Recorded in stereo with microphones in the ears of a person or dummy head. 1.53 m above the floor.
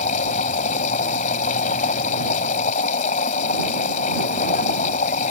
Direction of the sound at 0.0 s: 35° left (ahead or behind).